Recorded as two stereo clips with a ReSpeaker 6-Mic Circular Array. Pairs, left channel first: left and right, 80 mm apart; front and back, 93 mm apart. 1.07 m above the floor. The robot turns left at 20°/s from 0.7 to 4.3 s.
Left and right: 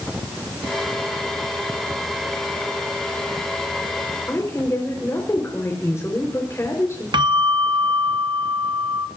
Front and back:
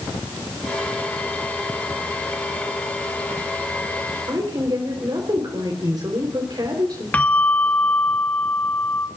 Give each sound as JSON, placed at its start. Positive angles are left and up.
{"t": 4.3, "sound": "a woman speaking", "azimuth_deg": 145, "distance_m": 4.0}
{"t": 7.1, "sound": "a bell", "azimuth_deg": -70, "distance_m": 0.7}